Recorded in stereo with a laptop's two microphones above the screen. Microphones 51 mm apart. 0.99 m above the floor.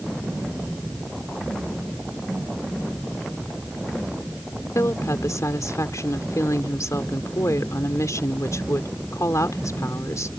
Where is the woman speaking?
85° left.